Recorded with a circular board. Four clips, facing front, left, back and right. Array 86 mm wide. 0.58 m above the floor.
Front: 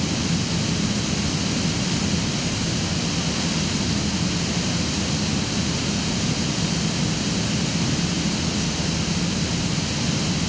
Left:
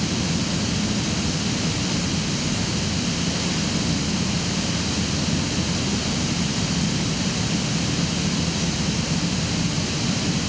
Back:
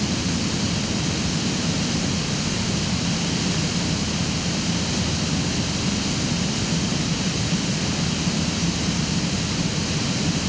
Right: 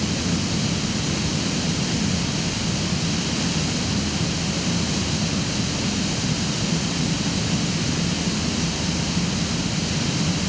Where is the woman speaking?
I don't hear a woman speaking.